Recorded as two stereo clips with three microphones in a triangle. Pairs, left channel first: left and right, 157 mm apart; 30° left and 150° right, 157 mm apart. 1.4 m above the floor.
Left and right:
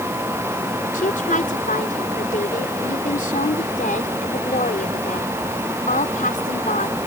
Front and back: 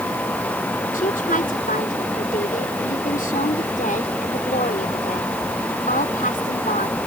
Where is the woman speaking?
60° left.